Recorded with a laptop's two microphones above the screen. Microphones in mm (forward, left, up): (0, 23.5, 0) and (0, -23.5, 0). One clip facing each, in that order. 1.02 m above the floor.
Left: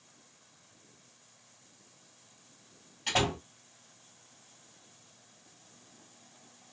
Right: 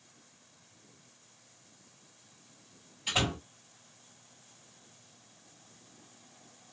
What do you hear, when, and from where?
3.1 s a door slam: 85° left, 1.9 m